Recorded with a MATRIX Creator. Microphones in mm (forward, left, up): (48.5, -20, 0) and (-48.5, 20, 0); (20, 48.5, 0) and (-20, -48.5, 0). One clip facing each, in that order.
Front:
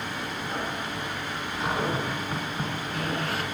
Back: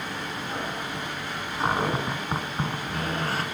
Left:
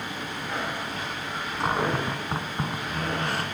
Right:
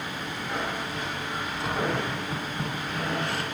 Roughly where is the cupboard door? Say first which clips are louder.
Back 3 dB, left 3 dB; left.